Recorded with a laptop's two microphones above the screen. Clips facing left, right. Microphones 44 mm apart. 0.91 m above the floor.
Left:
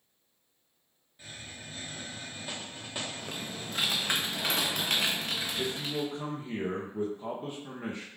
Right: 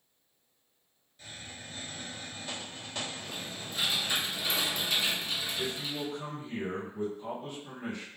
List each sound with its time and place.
1.2 s a hiss: 15° left (ahead or behind), 1.1 m
3.2 s typing on a keyboard: 60° left (ahead or behind), 0.7 m
5.6 s a man speaking: 35° left (ahead or behind), 0.8 m